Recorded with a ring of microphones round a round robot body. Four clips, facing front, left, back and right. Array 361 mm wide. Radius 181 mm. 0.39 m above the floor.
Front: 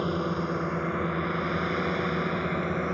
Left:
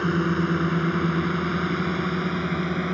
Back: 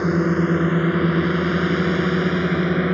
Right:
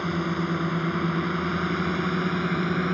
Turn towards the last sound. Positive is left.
turn(degrees=-175)